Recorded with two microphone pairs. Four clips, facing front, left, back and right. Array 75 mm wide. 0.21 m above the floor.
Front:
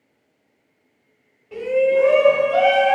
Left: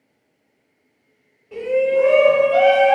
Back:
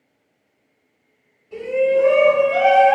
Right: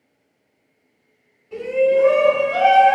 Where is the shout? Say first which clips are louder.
Right 1 dB, even; 15° left, 1.3 m; by 3.0 s 110° left, 1.1 m.